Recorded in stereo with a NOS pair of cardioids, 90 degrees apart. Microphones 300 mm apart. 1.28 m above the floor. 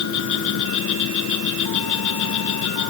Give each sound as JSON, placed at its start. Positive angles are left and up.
{"t": 0.0, "sound": "an insect", "azimuth_deg": 70}